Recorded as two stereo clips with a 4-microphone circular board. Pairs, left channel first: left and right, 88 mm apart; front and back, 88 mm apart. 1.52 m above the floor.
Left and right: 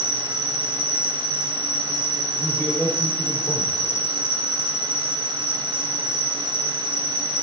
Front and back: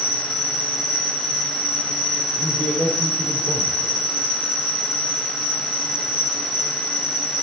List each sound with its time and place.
0.0 s an insect: 160° right, 6.5 m
2.4 s a man speaking: 150° left, 5.5 m